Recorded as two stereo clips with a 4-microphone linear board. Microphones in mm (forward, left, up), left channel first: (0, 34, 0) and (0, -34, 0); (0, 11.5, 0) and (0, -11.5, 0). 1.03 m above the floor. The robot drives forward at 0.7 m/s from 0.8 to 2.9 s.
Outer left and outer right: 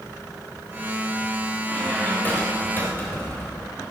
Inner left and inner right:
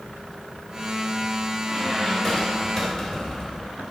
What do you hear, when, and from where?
1.6 s a squeak: 25° left (ahead or behind), 3.5 m; by 3.7 s 35° left (ahead or behind), 3 m